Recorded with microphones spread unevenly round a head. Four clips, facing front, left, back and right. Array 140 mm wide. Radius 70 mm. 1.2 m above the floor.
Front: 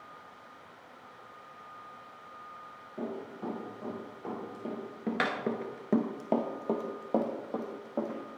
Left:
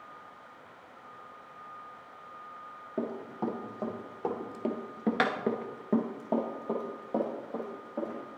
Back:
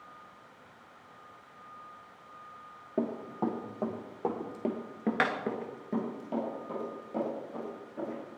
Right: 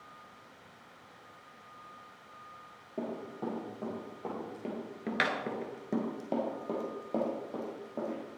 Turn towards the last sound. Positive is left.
turn(degrees=-5)